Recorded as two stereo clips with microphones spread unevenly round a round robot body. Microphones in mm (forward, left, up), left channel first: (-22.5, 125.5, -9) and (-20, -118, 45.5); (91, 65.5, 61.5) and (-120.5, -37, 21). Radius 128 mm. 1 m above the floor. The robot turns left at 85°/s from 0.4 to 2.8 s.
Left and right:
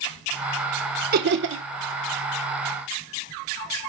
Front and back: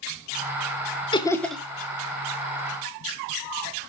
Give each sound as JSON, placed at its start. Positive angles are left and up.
{"t": 1.1, "sound": "laughter", "azimuth_deg": -40, "distance_m": 0.9}